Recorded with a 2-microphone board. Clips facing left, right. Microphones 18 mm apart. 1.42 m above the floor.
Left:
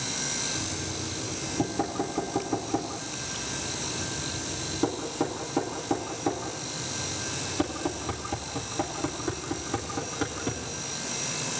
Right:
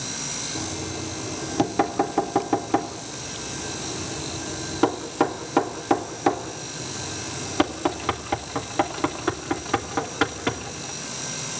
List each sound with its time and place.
0.6 s knocking: 50° right (ahead or behind), 2.5 m